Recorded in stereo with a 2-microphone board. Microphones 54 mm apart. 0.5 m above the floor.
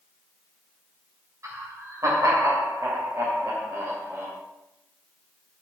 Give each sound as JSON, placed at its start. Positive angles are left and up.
{"t": 1.4, "sound": "laughter", "side_deg": -60, "distance_m": 2.5}